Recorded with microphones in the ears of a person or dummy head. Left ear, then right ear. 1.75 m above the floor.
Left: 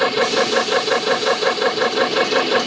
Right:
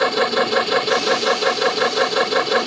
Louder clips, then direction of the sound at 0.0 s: Left 1 dB; 10° right (ahead or behind).